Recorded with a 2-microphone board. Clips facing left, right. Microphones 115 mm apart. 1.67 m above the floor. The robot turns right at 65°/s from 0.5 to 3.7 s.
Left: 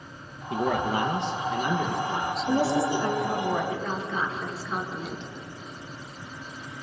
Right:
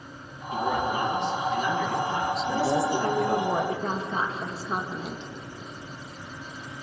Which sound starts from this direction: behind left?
A woman speaking, at 2.5 s.